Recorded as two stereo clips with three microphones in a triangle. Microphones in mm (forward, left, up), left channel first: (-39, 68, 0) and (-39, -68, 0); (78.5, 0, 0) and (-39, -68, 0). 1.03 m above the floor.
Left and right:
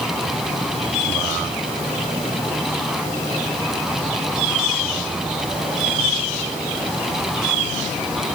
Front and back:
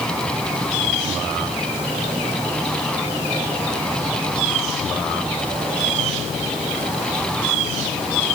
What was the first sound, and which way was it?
Only background noise.